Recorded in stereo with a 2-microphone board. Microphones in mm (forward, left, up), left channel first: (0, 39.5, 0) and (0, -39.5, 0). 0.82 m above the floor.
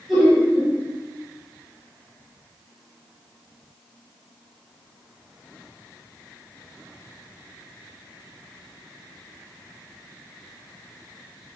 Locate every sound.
0.1 s laughter: centre (ahead or behind), 1.1 m